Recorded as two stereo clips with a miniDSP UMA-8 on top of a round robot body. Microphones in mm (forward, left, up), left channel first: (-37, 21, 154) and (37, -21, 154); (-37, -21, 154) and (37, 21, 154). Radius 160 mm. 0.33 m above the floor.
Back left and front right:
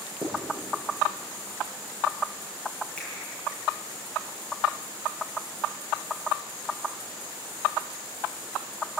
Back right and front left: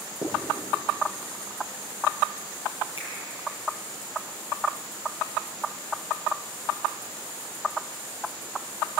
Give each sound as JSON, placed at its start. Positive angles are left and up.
{"t": 0.2, "sound": "writing", "azimuth_deg": -110, "distance_m": 8.5}
{"t": 3.0, "sound": "a finger snap", "azimuth_deg": -130, "distance_m": 9.5}